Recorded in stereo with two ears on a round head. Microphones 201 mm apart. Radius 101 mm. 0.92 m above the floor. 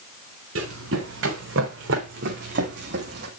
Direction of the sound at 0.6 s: 60° right (ahead or behind).